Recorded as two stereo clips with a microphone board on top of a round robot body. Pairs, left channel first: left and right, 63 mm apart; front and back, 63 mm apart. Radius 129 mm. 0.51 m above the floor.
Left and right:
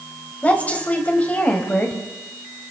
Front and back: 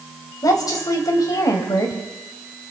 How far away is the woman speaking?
About 3.5 m.